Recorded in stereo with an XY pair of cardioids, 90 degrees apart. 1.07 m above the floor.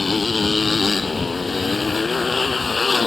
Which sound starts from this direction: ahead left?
A motorcycle, at 0.0 s.